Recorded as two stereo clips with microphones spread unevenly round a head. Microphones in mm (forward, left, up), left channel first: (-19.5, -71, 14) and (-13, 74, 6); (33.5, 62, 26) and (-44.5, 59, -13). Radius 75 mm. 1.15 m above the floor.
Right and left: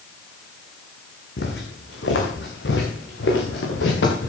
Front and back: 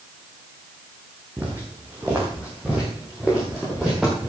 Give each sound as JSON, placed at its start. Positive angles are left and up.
{"t": 1.4, "sound": "footsteps", "azimuth_deg": -95, "distance_m": 3.5}